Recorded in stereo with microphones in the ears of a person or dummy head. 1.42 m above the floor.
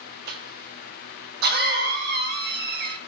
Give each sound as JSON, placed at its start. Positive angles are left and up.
{"t": 0.3, "sound": "a cough", "side_deg": -55, "distance_m": 0.9}